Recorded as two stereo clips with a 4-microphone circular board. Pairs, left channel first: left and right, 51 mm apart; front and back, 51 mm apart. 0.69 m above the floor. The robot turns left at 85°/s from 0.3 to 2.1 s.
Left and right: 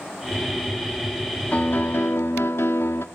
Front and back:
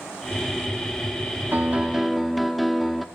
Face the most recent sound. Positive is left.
turn(degrees=90)